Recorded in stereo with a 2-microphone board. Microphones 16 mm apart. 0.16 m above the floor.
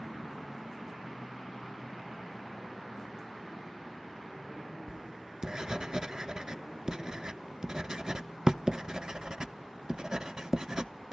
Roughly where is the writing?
Right.